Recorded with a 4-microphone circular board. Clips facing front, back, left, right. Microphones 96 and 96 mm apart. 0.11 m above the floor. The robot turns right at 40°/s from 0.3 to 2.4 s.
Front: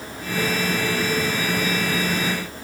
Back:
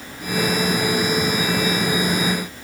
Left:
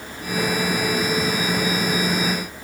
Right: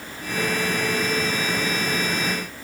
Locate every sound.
Only background noise.